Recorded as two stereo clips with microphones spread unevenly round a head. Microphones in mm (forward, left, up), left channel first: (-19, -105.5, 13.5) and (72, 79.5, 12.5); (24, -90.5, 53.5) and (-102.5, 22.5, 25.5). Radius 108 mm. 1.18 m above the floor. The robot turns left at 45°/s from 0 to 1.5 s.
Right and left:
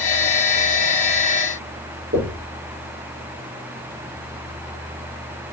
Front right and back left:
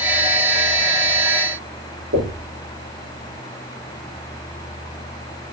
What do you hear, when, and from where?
2.1 s knocking: 110° left, 3.5 m